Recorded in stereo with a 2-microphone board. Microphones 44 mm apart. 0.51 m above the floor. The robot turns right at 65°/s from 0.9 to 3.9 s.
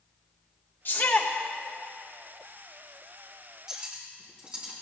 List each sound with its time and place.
0.8 s a shout: 60° left (ahead or behind), 1.6 m
3.7 s cutlery clinking: 10° right (ahead or behind), 3 m; by 4.7 s 25° right (ahead or behind), 3 m